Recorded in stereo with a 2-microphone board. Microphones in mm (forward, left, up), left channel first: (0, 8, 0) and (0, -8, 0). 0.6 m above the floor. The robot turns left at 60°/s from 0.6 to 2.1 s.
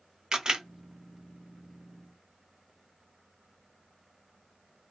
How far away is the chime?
No chime in this recording.